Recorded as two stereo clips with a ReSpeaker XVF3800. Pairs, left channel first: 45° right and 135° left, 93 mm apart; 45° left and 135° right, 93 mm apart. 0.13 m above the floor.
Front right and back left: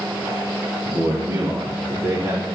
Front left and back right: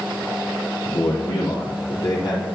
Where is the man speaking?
80° left, 4.5 m; by 2.5 s 65° left, 5 m.